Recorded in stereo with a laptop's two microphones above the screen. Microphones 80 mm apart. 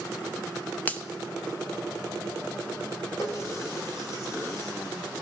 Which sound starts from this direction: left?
A running tap, at 3.2 s.